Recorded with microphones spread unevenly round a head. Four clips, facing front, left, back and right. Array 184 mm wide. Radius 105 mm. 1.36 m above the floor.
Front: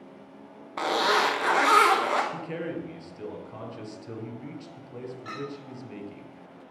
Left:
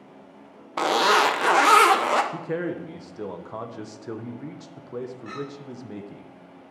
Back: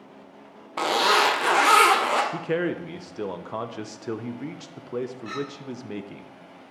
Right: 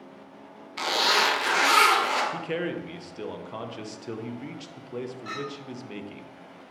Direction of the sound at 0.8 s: 120° left.